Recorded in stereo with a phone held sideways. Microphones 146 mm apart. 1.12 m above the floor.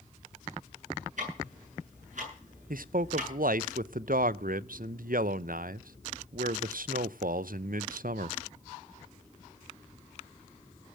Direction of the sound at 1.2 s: 60° right (ahead or behind).